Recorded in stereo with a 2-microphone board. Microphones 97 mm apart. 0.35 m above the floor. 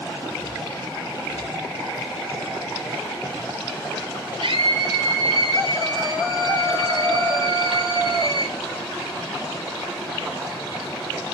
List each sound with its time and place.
4.4 s a scream: 75° right (ahead or behind), 6.5 m